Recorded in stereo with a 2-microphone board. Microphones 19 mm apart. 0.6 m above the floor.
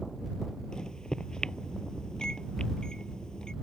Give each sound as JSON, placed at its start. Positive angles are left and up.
{"t": 0.7, "sound": "a microwave", "side_deg": 40}